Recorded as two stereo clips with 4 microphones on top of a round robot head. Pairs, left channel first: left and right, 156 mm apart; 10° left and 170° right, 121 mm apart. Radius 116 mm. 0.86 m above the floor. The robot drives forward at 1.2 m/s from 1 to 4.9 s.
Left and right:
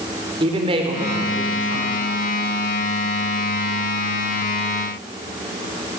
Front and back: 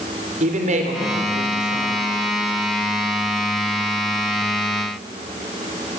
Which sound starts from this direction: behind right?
A woman speaking, at 0.4 s.